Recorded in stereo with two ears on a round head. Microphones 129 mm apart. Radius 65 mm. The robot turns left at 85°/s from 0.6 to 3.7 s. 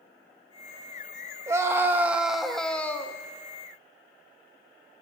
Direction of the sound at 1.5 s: 20° right (ahead or behind).